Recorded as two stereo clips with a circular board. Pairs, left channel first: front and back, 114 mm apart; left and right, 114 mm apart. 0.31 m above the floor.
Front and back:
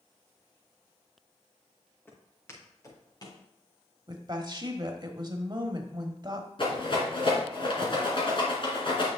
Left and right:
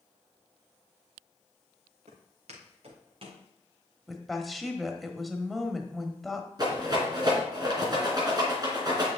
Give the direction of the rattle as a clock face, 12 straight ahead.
1 o'clock.